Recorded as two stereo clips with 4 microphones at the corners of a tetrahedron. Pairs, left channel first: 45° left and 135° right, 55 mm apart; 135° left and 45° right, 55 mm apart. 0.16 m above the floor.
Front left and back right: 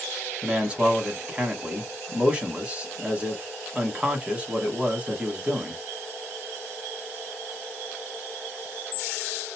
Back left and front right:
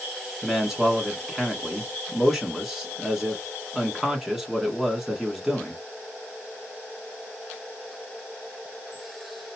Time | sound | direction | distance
0.4 | a man speaking | 120° right | 1.1 m